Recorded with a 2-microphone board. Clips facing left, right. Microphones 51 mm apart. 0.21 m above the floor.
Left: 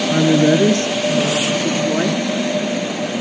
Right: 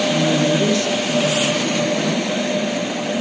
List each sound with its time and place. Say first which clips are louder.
0.1 s a woman speaking: left 8 dB; 50° left (ahead or behind), 4 m; by 2.2 s 40° left (ahead or behind), 4.5 m